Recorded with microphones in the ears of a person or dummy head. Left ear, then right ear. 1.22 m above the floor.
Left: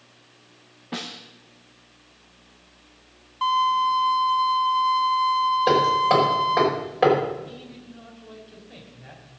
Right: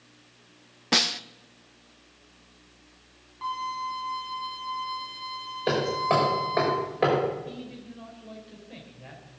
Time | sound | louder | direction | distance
0.9 | a snare drum | right 11 dB | 75° right (ahead or behind) | 0.6 m
3.4 | a violin | left 11 dB | 35° left (ahead or behind) | 2 m
5.7 | hammering | left 3 dB | 5° left (ahead or behind) | 5 m
7.5 | a man speaking | right 1 dB | 15° right (ahead or behind) | 5 m